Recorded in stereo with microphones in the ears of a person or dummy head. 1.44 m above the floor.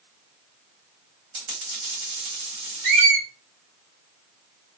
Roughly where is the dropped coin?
Right.